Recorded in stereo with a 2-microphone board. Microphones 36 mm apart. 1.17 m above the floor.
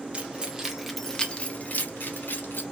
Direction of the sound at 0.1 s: 30° right (ahead or behind).